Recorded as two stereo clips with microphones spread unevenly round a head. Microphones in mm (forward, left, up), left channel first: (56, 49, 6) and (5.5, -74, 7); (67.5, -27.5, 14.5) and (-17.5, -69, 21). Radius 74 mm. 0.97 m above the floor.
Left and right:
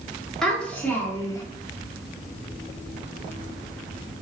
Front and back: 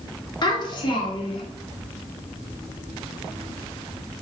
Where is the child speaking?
20° right, 1.3 m; by 1.4 s 5° left, 0.9 m.